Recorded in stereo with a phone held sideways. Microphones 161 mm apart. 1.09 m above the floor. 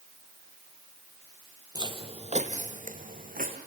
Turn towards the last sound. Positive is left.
turn(degrees=-60)  # may be behind; listen again after turning